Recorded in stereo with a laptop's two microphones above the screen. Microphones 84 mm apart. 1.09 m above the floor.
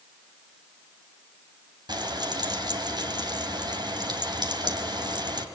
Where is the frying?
60° right (ahead or behind), 2.5 m.